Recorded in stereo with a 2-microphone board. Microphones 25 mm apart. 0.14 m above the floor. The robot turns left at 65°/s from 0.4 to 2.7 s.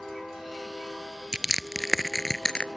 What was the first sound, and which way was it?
Crushing, 35° right (ahead or behind).